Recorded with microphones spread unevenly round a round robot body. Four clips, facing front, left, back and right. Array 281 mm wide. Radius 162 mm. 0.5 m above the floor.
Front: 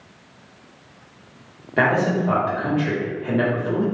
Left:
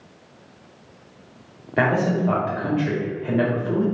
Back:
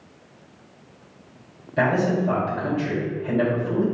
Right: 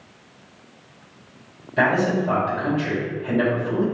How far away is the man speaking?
About 2.0 m.